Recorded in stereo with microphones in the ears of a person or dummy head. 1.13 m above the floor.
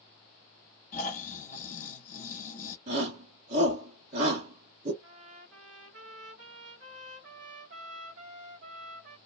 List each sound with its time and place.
0.9 s snoring: 45° left (ahead or behind), 1.5 m
2.9 s a shout: 40° right (ahead or behind), 1.5 m
5.0 s a trumpet: 50° right (ahead or behind), 1.2 m